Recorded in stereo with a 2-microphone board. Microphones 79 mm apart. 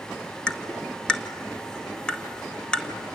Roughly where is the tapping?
Centre.